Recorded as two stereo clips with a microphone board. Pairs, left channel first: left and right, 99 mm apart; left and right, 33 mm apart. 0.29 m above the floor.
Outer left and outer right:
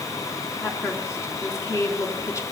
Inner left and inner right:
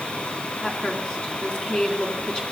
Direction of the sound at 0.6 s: 30° left (ahead or behind).